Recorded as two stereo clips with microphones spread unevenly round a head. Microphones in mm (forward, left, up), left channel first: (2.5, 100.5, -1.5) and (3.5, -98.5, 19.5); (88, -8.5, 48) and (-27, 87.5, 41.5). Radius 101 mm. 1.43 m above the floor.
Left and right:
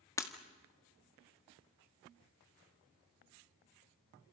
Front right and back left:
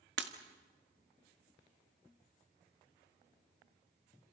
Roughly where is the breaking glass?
Behind.